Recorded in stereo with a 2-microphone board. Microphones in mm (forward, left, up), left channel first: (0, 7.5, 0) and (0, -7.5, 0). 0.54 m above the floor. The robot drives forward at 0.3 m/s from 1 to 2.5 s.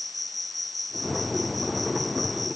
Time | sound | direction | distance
0.0 | an insect | 5° left (ahead or behind) | ?